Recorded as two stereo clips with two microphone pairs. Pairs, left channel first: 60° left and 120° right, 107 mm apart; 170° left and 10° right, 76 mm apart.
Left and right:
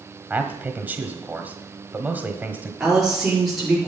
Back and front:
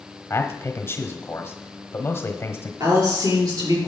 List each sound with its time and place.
0.3 s a man speaking: straight behind, 1.3 m
2.8 s a woman speaking: 35° right, 5 m